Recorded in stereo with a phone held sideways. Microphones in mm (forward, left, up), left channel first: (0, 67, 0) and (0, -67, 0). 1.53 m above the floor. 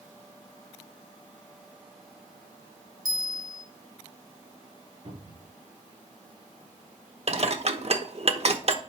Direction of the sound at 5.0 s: 45° right (ahead or behind).